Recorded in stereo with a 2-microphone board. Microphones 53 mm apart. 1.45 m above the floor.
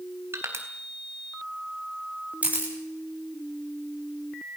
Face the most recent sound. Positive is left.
turn(degrees=-30)  # may be behind; listen again after turning